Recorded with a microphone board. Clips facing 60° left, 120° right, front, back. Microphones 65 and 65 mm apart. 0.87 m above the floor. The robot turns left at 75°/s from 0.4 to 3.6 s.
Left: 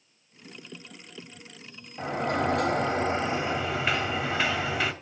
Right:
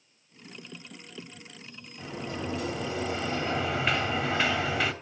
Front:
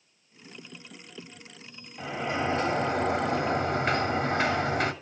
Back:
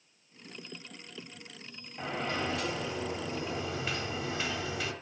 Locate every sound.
2.0 s a sliding door: 95° left, 2 m; by 4.9 s 25° right, 2 m